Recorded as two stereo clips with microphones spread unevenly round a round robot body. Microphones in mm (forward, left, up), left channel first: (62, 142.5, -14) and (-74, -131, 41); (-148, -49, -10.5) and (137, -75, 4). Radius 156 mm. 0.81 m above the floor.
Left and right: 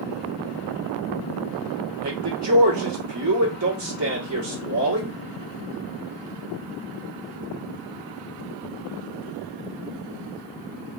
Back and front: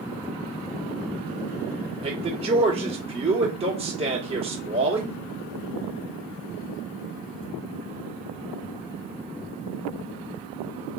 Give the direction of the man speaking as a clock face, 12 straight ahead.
3 o'clock.